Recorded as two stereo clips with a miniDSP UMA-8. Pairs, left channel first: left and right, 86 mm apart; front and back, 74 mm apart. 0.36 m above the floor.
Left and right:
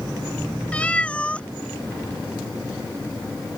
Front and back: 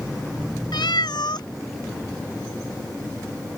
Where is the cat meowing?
15° left.